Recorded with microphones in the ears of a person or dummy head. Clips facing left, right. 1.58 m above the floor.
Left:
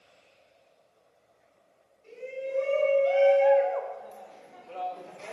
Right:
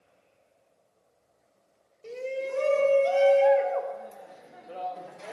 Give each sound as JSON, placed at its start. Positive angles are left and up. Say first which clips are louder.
{"t": 2.0, "sound": "a shout", "louder": "right 4 dB", "side_deg": -85, "distance_m": 1.3}